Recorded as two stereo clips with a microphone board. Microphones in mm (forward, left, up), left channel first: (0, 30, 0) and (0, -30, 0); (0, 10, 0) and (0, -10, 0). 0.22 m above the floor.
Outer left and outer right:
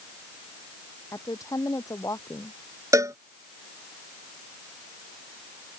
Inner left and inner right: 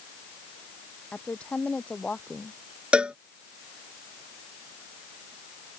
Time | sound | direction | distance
1.1 | a woman speaking | 60° left (ahead or behind) | ?
2.9 | a cowbell | 60° right (ahead or behind) | ?